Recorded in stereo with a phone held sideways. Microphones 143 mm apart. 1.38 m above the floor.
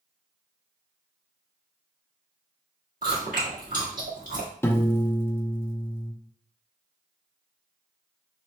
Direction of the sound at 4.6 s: 15° left (ahead or behind).